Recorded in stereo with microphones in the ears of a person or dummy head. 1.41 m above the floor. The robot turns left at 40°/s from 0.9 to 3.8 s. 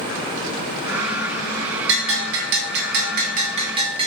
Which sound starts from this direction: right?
A bell, at 1.9 s.